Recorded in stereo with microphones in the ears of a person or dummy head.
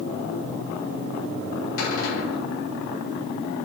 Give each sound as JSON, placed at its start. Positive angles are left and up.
{"t": 1.8, "sound": "a cupboard door", "side_deg": 75, "distance_m": 5.0}